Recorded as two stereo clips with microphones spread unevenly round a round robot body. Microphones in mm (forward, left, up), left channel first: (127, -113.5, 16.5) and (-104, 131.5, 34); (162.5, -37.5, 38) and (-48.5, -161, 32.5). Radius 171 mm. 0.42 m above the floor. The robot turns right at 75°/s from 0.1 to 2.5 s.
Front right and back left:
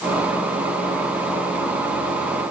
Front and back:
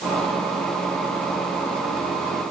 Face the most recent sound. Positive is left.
No sound to turn to.